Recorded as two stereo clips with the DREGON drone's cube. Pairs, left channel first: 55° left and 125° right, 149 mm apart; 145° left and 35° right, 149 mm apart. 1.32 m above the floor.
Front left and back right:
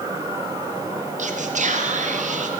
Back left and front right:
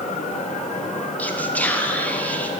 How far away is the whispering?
About 0.6 m.